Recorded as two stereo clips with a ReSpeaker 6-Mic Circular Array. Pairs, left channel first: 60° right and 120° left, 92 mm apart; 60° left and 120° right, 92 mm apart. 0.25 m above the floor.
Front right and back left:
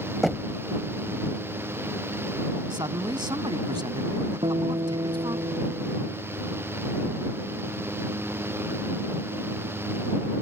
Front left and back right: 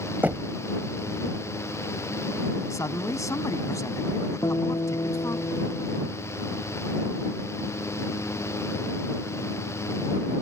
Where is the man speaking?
105° left.